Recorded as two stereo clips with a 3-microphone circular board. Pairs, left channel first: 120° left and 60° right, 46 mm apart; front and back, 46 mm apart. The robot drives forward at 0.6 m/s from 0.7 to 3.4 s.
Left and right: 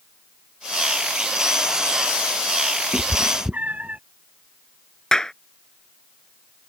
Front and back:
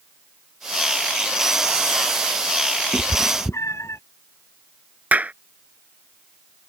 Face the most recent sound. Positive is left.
turn(degrees=-175)